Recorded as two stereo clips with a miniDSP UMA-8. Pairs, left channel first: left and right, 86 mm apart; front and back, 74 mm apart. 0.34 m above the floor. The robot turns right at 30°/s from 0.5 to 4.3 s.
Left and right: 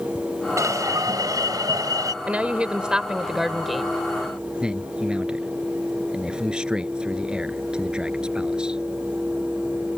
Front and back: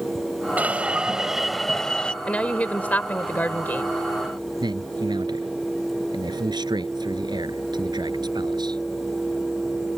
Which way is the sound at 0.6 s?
120° right.